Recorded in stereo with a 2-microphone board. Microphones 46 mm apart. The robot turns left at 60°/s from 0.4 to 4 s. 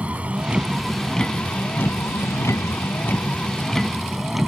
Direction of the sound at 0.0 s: 150° right.